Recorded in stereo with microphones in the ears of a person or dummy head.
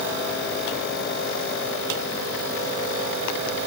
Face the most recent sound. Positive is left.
No sound to turn to.